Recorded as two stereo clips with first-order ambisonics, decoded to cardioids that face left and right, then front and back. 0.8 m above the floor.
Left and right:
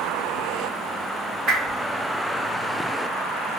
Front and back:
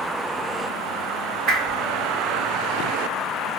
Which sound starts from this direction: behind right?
A whoosh, at 1.5 s.